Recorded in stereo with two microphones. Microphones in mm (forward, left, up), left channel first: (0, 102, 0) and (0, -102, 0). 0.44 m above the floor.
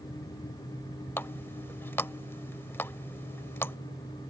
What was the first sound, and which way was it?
A running tap, 10° left (ahead or behind).